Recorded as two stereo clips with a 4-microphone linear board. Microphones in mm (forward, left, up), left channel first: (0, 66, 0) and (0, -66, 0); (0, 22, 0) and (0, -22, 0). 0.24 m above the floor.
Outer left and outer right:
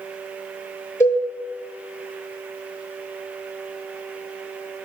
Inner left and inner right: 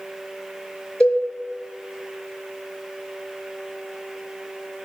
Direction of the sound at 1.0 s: 20° left (ahead or behind).